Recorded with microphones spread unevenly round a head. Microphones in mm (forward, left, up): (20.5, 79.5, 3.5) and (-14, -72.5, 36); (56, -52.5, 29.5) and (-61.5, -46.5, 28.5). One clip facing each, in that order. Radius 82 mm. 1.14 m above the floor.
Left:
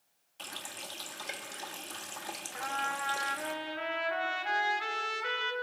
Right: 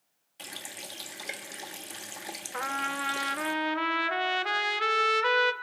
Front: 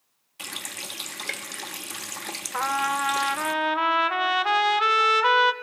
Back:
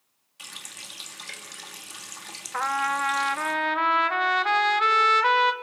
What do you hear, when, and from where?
0.4 s a running tap: 30° right, 1.1 m
2.5 s a trumpet: 85° right, 1.1 m